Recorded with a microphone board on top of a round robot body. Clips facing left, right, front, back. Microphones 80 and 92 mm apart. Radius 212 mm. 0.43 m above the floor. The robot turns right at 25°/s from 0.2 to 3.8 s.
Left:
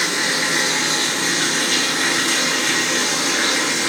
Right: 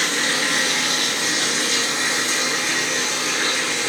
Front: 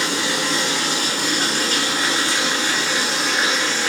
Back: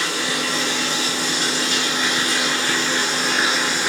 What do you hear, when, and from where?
0.0 s running water: 10° left, 1.7 m; by 3.9 s 100° left, 1.7 m